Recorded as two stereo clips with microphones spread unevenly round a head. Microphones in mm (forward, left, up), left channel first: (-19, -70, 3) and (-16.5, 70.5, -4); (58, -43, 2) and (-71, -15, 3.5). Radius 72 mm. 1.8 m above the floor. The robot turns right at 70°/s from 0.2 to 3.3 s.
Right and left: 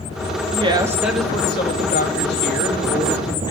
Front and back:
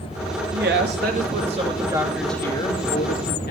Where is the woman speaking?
135° left, 2.5 m; by 3.5 s 30° right, 2.5 m.